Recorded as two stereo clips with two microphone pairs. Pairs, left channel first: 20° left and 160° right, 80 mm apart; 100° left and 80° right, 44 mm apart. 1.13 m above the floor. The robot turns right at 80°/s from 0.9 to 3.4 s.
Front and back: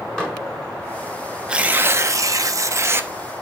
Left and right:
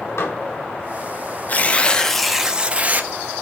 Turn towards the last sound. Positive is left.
turn(degrees=-80)